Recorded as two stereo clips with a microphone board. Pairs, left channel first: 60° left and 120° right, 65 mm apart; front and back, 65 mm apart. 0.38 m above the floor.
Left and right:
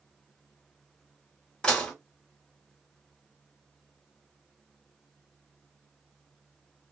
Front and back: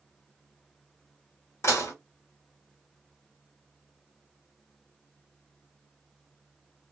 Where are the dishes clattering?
10° right, 1.0 m.